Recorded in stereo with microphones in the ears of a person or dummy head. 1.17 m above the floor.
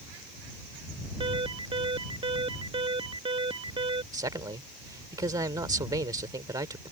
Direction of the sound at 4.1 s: 20° right (ahead or behind).